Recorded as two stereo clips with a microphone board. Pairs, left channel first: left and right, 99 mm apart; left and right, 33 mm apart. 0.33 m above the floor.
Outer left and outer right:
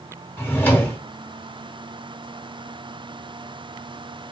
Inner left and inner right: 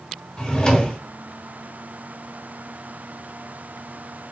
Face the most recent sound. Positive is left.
turn(degrees=20)  # may be behind; listen again after turning